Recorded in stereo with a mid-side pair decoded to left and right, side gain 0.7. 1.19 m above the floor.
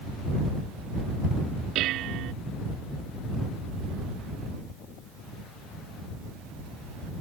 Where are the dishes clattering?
55° right.